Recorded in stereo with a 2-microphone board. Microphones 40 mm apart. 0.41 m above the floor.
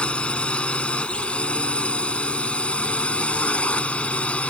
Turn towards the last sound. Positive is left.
turn(degrees=30)  # may be behind; listen again after turning